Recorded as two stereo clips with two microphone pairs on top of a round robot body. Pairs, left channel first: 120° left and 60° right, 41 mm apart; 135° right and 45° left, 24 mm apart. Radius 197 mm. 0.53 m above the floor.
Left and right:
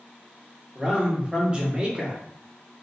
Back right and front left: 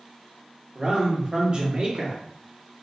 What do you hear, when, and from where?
0.8 s a man speaking: 10° left, 1.4 m